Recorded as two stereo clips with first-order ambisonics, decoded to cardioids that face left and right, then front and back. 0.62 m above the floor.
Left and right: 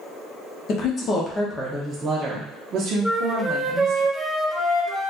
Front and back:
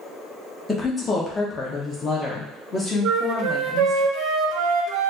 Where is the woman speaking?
75° left, 0.9 m; by 4.0 s 70° right, 1.5 m.